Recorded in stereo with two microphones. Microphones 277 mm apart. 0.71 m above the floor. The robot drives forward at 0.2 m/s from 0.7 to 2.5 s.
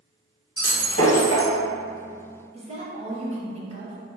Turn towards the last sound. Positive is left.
turn(degrees=-25)  # may be behind; listen again after turning